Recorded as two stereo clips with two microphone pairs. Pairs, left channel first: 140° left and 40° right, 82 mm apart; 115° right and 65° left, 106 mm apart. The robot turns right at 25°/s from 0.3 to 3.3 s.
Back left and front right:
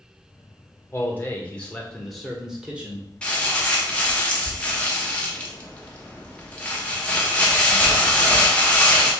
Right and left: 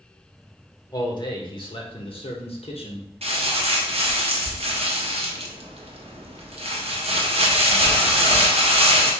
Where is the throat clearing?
No throat clearing in this recording.